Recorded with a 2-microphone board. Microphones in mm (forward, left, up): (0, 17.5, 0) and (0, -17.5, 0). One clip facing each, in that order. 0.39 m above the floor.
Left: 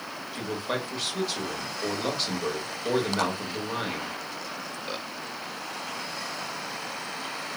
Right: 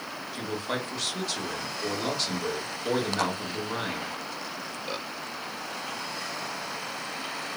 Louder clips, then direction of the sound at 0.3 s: Left 1 dB; 10° left (ahead or behind).